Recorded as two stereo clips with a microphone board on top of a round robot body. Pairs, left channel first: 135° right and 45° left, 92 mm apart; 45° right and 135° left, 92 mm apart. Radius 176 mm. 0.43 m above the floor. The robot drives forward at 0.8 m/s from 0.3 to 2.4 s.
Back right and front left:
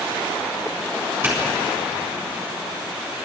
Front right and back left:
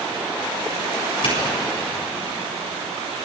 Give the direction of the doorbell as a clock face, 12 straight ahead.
1 o'clock.